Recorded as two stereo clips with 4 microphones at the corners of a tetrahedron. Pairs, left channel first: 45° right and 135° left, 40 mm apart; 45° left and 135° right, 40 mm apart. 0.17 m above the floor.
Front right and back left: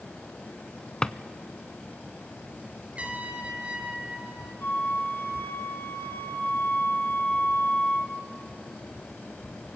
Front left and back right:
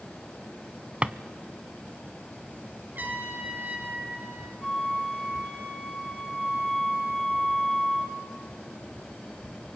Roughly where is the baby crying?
No baby crying in this recording.